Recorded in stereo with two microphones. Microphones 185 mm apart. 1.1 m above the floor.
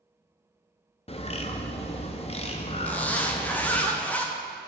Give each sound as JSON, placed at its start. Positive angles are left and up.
{"t": 1.1, "sound": "a bird", "side_deg": 35, "distance_m": 0.5}
{"t": 2.9, "sound": "a zipper", "side_deg": 10, "distance_m": 0.6}